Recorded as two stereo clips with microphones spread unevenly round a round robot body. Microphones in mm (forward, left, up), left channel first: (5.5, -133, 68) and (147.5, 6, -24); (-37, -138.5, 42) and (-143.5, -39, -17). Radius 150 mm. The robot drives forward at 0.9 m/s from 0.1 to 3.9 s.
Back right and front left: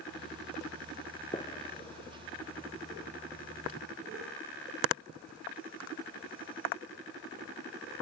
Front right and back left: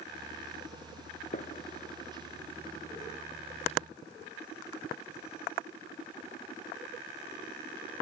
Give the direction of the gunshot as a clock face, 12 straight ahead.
2 o'clock.